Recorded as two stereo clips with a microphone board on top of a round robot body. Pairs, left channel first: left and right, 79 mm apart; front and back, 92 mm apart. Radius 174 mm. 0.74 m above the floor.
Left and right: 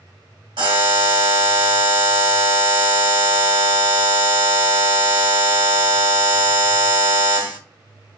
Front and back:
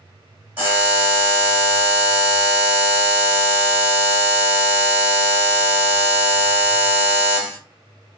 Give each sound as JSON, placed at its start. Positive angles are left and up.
{"t": 0.6, "sound": "a buzzer", "azimuth_deg": -115, "distance_m": 1.5}